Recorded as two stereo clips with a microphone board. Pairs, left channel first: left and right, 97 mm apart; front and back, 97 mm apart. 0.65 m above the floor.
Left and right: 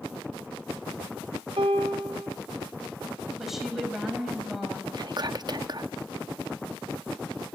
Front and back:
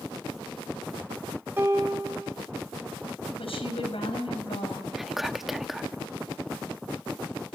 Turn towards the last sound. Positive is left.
turn(degrees=-90)